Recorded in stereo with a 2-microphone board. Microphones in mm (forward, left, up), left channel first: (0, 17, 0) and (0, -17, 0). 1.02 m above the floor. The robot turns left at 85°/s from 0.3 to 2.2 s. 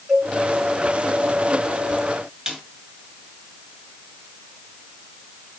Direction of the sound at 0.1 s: 5° right (ahead or behind).